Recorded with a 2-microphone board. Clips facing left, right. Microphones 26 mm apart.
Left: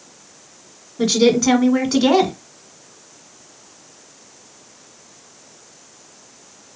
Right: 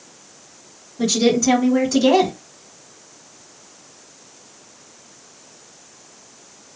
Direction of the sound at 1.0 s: 40° left (ahead or behind).